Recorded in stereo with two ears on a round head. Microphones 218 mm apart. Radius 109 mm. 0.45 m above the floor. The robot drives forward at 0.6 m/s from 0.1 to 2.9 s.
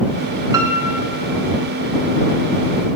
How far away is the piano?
About 0.6 m.